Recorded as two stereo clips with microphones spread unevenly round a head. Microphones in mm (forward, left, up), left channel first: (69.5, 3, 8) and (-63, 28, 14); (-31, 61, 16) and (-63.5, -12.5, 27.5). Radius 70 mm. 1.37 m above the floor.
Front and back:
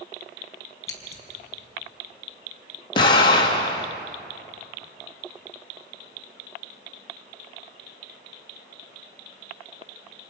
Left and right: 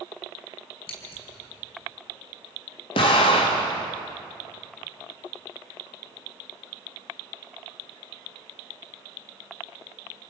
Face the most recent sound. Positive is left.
turn(degrees=45)